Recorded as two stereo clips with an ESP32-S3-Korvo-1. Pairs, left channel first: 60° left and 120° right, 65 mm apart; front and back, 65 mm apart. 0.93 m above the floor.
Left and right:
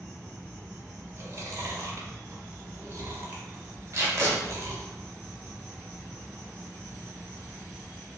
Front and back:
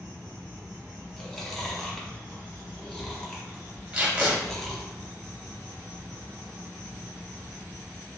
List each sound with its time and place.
0.0 s an insect: 20° left, 1.6 m
1.2 s chewing: 85° right, 0.6 m
3.9 s tape being pulled: 115° right, 0.7 m